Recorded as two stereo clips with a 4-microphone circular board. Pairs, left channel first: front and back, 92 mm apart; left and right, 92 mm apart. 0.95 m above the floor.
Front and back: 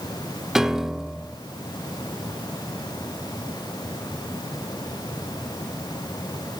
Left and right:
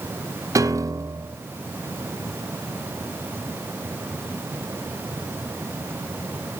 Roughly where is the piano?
Right.